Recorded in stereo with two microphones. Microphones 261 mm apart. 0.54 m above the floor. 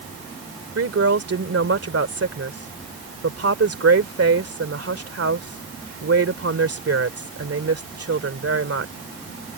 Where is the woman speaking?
55° right (ahead or behind).